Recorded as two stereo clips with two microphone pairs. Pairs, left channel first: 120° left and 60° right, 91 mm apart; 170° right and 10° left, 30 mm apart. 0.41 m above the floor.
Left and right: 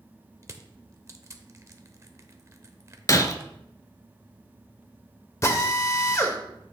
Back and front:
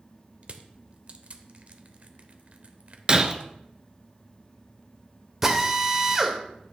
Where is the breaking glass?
75° left, 0.6 m.